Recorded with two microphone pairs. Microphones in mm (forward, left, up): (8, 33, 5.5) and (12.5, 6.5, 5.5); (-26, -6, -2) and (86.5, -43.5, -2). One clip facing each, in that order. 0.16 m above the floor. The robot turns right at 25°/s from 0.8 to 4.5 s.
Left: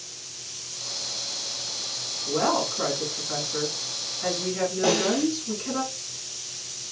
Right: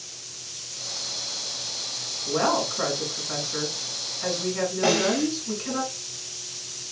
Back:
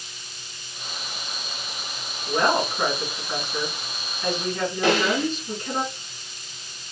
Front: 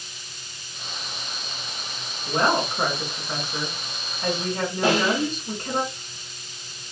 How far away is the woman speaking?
About 2 m.